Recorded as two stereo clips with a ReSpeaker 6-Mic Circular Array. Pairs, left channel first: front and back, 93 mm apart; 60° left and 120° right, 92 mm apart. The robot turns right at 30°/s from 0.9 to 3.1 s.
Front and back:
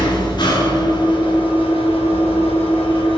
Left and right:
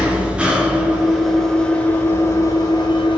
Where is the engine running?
40° right, 2.5 m; by 3.2 s 25° left, 2.5 m.